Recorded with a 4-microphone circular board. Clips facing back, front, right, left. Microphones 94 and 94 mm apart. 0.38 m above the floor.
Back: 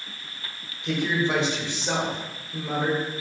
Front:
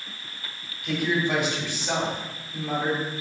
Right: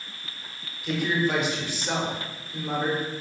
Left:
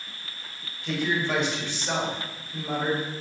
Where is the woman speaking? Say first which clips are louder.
Even, right 2 dB; 165° right, 1.2 m.